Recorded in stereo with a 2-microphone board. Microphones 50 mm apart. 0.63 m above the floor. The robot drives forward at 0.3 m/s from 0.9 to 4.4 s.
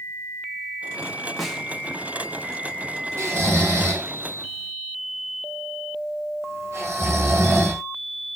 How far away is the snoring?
About 1.9 m.